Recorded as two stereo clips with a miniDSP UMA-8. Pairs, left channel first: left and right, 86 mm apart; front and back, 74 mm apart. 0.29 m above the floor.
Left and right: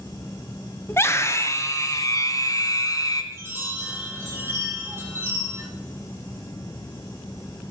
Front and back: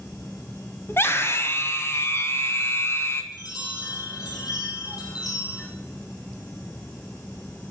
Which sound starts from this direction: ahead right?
A chime, at 3.3 s.